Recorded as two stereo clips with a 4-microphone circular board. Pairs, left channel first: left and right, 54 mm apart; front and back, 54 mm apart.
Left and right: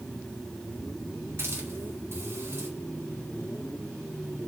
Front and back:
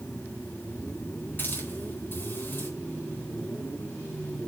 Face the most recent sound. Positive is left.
turn(degrees=-50)